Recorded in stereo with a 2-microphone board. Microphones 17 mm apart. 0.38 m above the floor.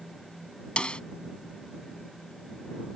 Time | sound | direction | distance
0.8 | a snare drum | 80° left | ?